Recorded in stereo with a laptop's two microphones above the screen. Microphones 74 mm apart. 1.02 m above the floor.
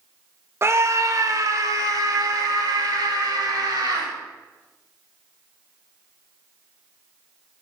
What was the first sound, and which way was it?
A scream, 35° right (ahead or behind).